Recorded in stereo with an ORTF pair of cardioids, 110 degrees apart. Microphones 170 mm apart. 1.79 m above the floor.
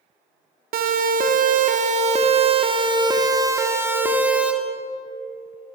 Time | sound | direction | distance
0.7 | a siren | 65° right | 3.5 m